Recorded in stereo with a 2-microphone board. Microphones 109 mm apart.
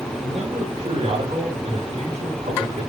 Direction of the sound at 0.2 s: 65° right (ahead or behind).